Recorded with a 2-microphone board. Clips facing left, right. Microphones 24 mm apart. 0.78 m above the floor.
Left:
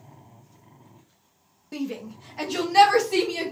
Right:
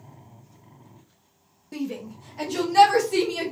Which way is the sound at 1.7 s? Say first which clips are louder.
Even; 15° left (ahead or behind).